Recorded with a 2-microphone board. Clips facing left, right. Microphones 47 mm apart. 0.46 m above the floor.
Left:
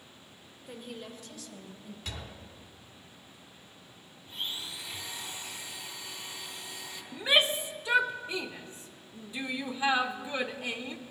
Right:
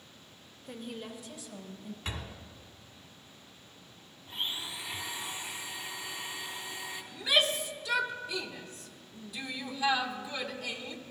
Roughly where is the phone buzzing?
No phone buzzing in this recording.